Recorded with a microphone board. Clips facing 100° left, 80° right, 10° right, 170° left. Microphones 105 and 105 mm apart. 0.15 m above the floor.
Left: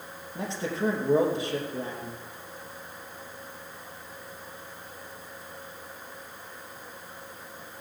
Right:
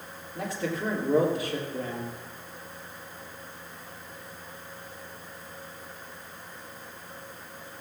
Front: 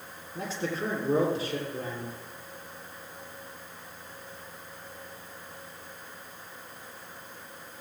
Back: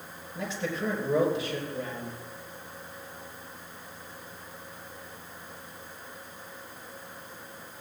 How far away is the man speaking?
About 3 m.